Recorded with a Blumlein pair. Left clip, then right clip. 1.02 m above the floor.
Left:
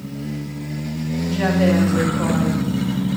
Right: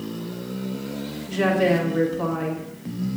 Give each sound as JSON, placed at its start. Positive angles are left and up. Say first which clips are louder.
{"t": 1.3, "sound": "a woman speaking", "louder": "even", "azimuth_deg": 0, "distance_m": 1.5}